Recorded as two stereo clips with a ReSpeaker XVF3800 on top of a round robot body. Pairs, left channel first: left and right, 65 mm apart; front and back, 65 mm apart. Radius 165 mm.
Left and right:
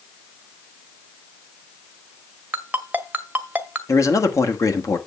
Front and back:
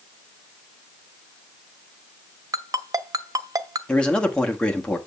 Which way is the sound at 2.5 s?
155° right.